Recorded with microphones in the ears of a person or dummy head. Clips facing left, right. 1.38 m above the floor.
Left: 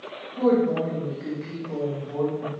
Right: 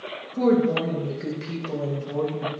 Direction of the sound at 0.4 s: 40° right (ahead or behind).